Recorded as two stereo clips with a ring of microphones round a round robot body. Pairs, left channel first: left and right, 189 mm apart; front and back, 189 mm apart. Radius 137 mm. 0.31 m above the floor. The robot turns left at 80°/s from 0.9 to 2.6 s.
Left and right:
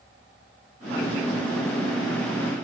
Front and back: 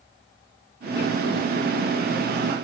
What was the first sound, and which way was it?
Only background noise.